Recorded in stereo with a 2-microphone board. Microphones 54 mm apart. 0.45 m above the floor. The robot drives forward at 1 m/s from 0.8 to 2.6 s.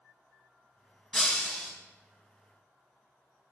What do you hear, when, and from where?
1.1 s breaking glass: 5° left (ahead or behind), 2 m